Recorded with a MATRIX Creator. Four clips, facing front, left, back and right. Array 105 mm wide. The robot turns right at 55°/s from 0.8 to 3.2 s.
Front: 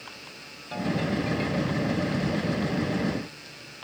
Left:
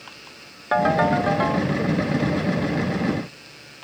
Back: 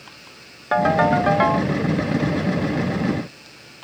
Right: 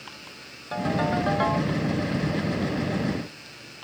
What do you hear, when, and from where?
0.7 s a ringtone: 140° left; by 1.7 s 170° right